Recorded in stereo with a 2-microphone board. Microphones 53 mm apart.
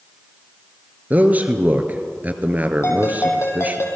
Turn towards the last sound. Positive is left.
turn(degrees=60)  # may be behind; listen again after turning